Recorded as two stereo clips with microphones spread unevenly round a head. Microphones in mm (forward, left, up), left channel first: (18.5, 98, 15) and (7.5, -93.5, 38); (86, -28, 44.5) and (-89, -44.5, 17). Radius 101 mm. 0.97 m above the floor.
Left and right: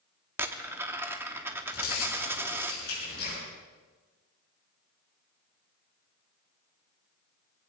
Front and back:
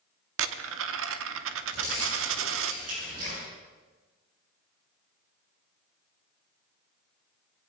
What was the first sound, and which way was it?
A dropped coin, 170° right.